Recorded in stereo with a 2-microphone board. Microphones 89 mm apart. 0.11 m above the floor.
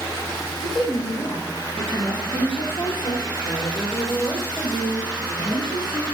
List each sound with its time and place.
0.6 s a woman speaking: 60° left (ahead or behind), 4 m; by 6.0 s 55° left (ahead or behind), 5 m